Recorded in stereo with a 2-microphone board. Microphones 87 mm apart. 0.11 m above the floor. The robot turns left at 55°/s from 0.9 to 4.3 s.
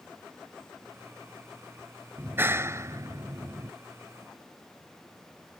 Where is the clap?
35° right; by 3.7 s 120° right.